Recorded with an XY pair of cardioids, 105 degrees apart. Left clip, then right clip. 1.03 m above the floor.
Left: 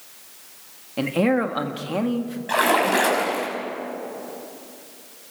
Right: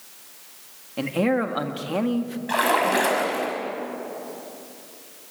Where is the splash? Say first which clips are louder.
Left 2 dB; 5° left, 5.5 m.